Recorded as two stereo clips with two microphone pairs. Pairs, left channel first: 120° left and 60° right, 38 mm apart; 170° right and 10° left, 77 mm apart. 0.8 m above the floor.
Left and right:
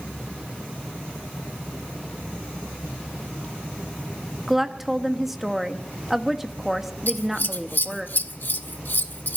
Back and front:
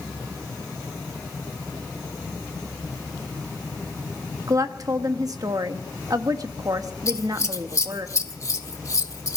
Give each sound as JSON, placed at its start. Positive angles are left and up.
{"t": 4.5, "sound": "a woman speaking", "azimuth_deg": 20, "distance_m": 1.1}
{"t": 7.1, "sound": "scissors", "azimuth_deg": 145, "distance_m": 0.9}